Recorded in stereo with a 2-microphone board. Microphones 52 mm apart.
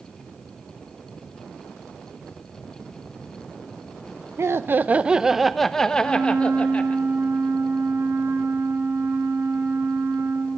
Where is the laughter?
60° right (ahead or behind), 0.7 m; by 7.0 s 25° left (ahead or behind), 1.7 m.